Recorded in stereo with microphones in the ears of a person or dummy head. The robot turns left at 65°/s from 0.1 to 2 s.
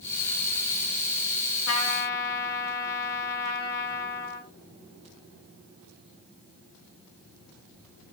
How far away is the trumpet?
About 0.9 m.